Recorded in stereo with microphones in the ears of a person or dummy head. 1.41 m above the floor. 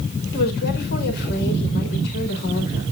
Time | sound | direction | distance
0.3 | a woman speaking | 65° left (ahead or behind) | 4.5 m